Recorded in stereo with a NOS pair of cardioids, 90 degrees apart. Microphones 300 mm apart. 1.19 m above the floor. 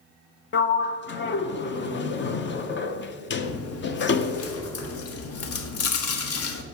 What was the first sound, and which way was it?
A sliding door, 35° left.